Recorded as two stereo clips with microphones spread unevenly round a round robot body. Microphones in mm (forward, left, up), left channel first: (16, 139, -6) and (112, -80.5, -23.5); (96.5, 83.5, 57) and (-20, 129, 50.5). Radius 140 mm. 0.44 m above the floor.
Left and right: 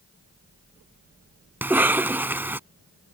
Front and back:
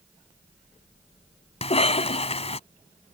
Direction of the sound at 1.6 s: 15° left.